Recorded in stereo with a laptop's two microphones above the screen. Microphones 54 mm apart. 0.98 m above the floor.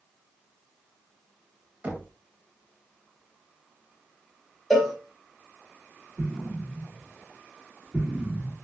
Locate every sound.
1.8 s knocking: 30° right (ahead or behind), 0.9 m
4.7 s a cowbell: 5° left (ahead or behind), 0.9 m
6.2 s an explosion: 35° right (ahead or behind), 2 m